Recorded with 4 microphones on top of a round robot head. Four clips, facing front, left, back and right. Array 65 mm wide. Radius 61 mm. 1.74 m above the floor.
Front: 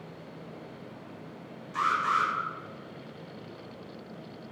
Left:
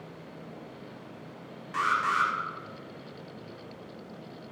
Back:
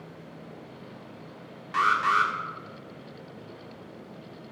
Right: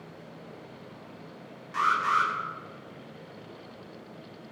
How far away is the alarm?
About 7.5 m.